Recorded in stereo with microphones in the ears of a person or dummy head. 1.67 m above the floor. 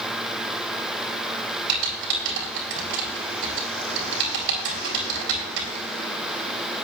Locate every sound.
1.7 s typing on a keyboard: 75° right (ahead or behind), 4.5 m